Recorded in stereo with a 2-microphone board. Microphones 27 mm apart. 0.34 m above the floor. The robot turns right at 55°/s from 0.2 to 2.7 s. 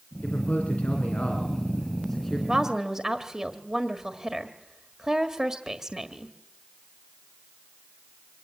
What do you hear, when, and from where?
0.2 s a man speaking: 60° left, 3.5 m; by 2.4 s straight behind, 3.5 m
2.5 s a woman speaking: 30° right (ahead or behind), 1.6 m; by 6.3 s 25° right (ahead or behind), 1.6 m